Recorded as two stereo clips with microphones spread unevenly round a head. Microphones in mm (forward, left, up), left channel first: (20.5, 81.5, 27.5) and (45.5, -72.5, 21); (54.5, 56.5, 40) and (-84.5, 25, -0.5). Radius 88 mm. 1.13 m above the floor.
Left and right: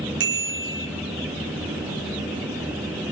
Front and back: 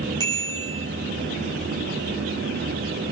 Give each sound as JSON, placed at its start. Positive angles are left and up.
{"t": 0.2, "sound": "a bicycle bell", "azimuth_deg": -100, "distance_m": 6.5}